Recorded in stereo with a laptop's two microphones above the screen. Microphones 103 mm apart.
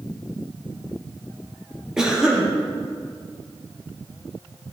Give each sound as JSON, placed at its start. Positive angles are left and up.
{"t": 2.0, "sound": "a cough", "side_deg": -5, "distance_m": 0.9}